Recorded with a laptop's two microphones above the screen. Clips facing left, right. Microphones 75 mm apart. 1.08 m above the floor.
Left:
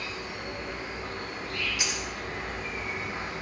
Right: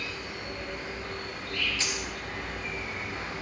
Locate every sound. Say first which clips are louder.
0.0 s an insect: left 1 dB; 20° left (ahead or behind), 4 m
1.8 s a dropped coin: left 1 dB; 15° left (ahead or behind), 2 m